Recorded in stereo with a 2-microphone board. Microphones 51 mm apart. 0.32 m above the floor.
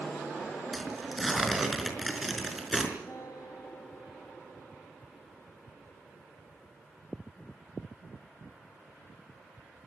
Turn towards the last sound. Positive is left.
turn(degrees=65)  # may be behind; listen again after turning